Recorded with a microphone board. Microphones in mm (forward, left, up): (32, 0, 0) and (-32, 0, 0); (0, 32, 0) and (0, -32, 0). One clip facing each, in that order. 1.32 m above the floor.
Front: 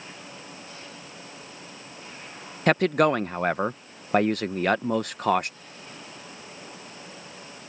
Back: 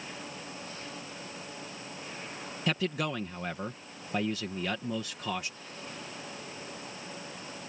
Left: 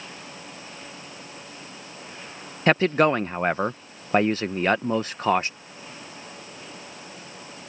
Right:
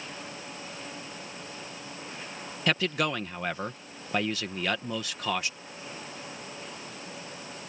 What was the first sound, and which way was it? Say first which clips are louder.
A man speaking: front 12 dB, left 9 dB; 35° left.